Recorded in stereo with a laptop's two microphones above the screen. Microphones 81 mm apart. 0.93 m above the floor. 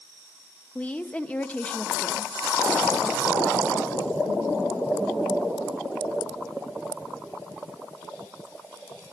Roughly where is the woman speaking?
Centre.